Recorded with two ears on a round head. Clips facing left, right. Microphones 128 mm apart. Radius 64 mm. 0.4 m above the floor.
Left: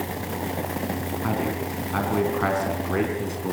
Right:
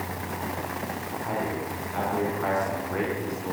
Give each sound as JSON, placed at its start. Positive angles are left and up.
{"t": 1.2, "sound": "a man speaking", "side_deg": 75, "distance_m": 4.0}